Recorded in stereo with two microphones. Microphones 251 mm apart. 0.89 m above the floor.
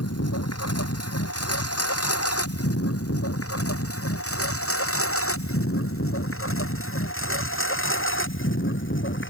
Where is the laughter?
No laughter in this recording.